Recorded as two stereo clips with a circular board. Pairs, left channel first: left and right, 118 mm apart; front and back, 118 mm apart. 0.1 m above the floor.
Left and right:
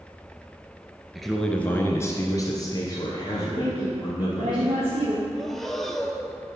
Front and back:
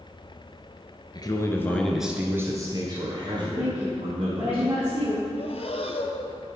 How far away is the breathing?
About 0.7 m.